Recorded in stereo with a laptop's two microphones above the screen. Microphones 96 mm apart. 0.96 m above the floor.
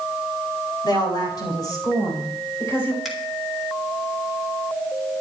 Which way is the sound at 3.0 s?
Centre (ahead or behind).